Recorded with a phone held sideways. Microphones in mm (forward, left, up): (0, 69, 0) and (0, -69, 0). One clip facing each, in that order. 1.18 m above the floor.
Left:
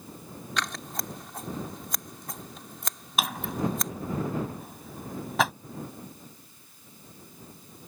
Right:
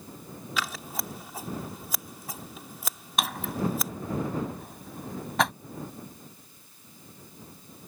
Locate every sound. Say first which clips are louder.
0.6 s scissors: even; 5° right (ahead or behind)
3.2 s a drawer: even; centre (ahead or behind)